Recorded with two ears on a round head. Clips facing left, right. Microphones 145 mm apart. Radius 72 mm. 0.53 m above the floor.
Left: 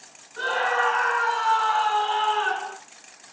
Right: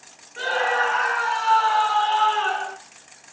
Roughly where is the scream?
Centre.